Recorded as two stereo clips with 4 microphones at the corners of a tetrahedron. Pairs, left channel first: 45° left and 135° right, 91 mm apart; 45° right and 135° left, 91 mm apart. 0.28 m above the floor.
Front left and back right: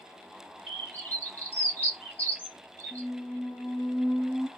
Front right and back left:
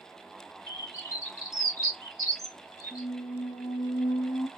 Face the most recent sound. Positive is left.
turn(degrees=-30)